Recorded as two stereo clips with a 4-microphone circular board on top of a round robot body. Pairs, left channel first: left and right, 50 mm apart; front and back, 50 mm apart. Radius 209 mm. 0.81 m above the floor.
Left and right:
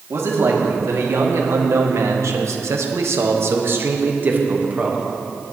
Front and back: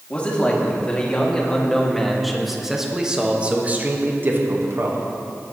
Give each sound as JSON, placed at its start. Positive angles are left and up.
{"t": 0.1, "sound": "a man speaking", "azimuth_deg": -65, "distance_m": 2.5}